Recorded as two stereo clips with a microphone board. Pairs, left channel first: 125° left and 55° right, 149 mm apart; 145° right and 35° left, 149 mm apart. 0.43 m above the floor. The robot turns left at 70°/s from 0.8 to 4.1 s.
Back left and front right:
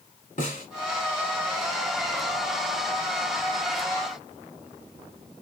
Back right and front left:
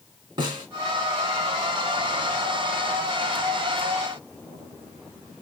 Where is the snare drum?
95° left, 1.3 m.